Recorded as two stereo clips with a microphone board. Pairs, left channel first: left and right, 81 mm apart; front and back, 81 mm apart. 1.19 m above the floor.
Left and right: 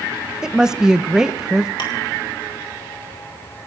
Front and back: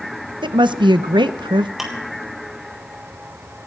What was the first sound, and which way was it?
A woman speaking, 170° right.